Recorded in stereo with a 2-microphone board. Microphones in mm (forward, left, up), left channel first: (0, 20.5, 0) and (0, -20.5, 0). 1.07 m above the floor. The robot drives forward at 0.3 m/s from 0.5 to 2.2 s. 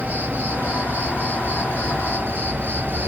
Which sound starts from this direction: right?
An insect, at 0.0 s.